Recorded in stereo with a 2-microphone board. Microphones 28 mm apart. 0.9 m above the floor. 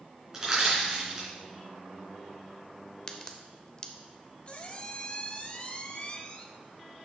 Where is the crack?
30° left (ahead or behind), 0.8 m.